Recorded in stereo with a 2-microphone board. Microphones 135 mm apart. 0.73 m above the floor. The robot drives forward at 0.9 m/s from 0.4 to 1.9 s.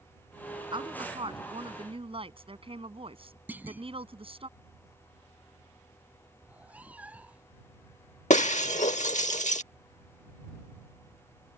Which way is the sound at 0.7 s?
40° right (ahead or behind).